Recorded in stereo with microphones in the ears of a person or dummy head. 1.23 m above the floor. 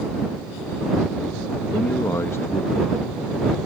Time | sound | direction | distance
1.7 | a man speaking | 10° left (ahead or behind) | ?